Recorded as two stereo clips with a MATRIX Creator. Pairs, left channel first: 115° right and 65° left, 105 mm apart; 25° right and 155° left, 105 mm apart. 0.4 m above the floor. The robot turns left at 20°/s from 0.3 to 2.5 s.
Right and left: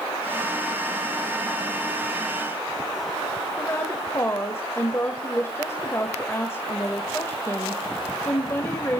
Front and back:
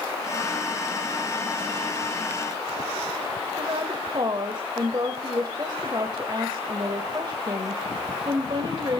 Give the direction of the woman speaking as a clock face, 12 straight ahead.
6 o'clock.